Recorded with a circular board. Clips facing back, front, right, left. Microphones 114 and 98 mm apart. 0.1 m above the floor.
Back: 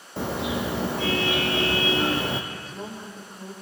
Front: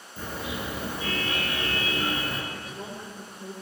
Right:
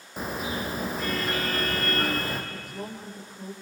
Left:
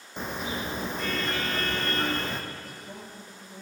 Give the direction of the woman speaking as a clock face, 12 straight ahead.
4 o'clock.